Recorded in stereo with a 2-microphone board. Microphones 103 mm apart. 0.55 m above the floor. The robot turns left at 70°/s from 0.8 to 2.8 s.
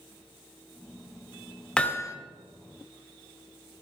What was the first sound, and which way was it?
Hammering, 5° left (ahead or behind).